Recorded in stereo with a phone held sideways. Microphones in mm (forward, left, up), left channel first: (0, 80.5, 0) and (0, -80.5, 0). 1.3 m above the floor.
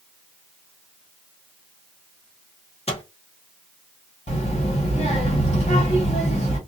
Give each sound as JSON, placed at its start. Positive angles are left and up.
{"t": 2.9, "sound": "a microwave", "side_deg": 40, "distance_m": 0.7}
{"t": 4.3, "sound": "a child speaking", "side_deg": 45, "distance_m": 1.4}